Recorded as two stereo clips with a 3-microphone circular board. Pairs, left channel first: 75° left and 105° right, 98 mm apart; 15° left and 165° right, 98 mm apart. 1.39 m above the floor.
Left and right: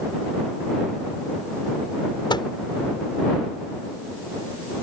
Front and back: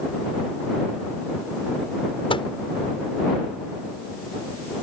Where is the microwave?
40° left.